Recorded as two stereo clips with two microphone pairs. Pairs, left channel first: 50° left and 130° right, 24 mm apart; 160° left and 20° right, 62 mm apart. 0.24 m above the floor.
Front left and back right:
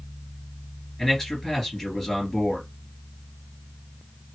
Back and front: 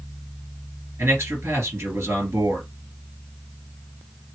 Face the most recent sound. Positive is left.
turn(degrees=-25)